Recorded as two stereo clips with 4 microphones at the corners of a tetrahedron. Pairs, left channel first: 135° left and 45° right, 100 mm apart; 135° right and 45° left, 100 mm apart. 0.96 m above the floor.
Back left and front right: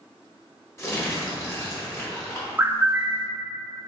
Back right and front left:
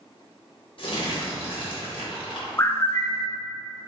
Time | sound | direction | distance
0.8 | crumpling | 165° right | 1.3 m
2.6 | a bird | 95° right | 0.5 m